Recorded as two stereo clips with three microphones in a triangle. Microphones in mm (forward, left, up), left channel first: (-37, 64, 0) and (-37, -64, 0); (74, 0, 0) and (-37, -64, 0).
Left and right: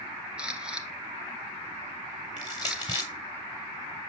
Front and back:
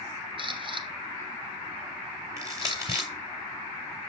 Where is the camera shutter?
170° right, 1.4 m.